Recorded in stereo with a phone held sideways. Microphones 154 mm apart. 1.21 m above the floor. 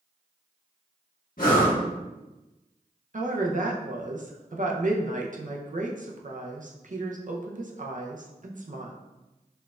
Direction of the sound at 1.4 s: 65° left (ahead or behind).